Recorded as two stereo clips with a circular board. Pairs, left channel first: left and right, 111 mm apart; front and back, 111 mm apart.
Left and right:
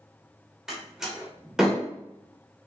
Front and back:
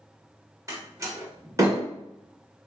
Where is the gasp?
I don't hear a gasp.